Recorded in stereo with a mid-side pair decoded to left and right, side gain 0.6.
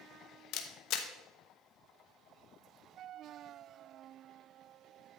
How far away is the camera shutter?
About 1.1 m.